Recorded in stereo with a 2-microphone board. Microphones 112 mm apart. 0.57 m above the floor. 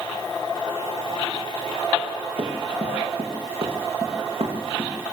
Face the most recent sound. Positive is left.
turn(degrees=-75)  # may be behind; listen again after turning